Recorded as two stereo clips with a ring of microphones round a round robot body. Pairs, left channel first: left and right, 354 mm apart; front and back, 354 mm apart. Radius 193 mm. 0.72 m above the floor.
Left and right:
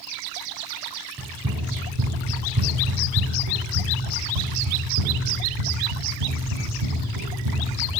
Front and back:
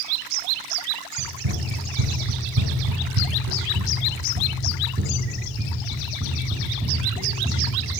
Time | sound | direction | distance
1.2 | running footsteps | 155° right | 2.5 m